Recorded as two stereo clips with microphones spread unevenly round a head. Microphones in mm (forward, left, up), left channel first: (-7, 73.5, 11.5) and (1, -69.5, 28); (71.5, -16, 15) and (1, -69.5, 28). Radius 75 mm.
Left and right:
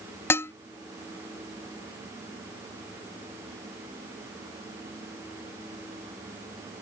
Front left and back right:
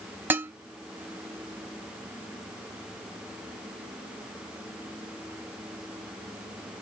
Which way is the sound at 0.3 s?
170° left.